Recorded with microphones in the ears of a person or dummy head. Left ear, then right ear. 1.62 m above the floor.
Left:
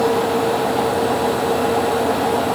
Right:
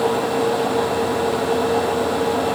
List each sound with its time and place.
Only background noise.